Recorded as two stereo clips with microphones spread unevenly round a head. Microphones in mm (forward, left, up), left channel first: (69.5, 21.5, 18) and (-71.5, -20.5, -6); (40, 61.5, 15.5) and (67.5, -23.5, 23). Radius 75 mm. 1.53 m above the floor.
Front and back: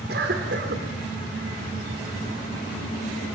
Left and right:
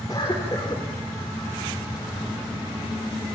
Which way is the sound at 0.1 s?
175° left.